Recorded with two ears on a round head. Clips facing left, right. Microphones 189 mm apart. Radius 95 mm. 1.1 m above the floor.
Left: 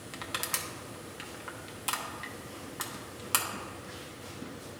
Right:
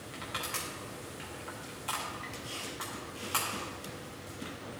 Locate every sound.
0.1 s crushing: 50° left (ahead or behind), 0.8 m